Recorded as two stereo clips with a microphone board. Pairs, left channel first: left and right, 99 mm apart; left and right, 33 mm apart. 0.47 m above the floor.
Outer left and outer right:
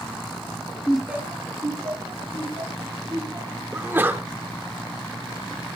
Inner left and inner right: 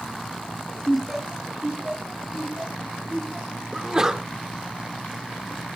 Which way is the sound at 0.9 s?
10° left (ahead or behind).